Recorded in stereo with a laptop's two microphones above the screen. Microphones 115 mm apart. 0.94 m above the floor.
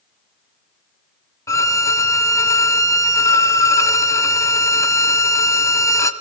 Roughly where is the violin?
Left.